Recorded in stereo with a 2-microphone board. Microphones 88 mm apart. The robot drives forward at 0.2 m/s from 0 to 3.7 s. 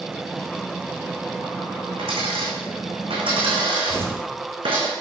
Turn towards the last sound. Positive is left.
turn(degrees=-20)  # may be behind; listen again after turning